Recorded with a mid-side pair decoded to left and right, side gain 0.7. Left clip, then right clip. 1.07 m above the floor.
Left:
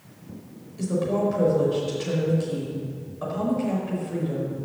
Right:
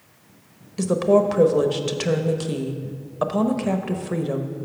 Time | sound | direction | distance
0.8 | a woman speaking | 55° right | 0.9 m